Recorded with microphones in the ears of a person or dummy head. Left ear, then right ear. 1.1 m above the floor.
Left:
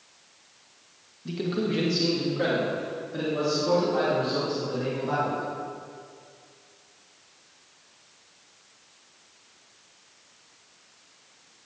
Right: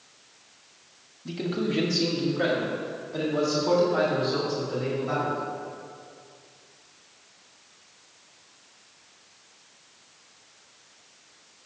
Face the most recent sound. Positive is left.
turn(degrees=-10)  # may be behind; listen again after turning